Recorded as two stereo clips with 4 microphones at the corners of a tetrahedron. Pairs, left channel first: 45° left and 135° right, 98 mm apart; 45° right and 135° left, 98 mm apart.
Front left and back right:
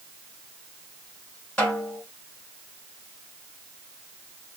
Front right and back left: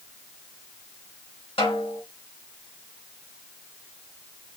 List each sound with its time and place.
1.6 s a snare drum: 35° right, 2.5 m